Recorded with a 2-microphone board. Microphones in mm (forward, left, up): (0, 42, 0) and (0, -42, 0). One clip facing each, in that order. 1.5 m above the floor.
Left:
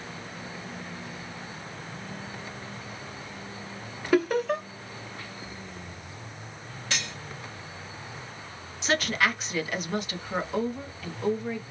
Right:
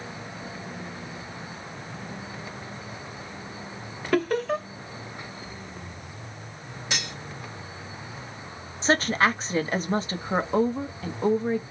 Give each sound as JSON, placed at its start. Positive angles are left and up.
{"t": 4.1, "sound": "laughter", "side_deg": 5, "distance_m": 0.8}
{"t": 6.9, "sound": "cutlery clinking", "side_deg": -15, "distance_m": 1.1}
{"t": 8.8, "sound": "a woman speaking", "side_deg": -35, "distance_m": 0.6}